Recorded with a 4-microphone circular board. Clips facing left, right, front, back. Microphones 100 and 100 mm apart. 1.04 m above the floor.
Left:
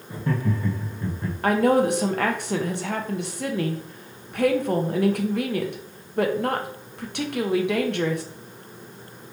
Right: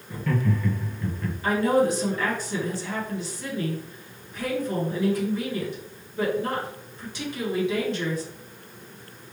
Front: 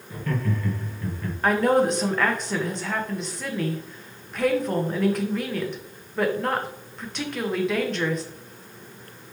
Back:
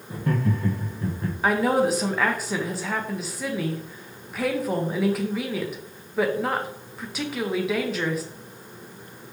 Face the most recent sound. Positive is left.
turn(degrees=95)